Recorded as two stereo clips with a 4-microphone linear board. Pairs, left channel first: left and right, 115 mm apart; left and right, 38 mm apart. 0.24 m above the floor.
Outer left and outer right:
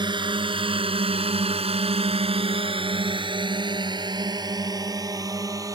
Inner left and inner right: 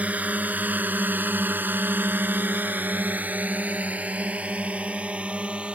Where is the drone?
45° right (ahead or behind); by 5.8 s 30° right (ahead or behind).